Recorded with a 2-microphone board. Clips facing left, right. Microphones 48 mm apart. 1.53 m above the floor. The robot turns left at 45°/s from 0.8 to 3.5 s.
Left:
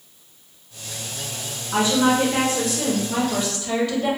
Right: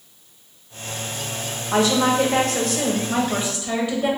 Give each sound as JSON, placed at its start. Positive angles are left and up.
{"t": 1.7, "sound": "a woman speaking", "azimuth_deg": -85, "distance_m": 1.0}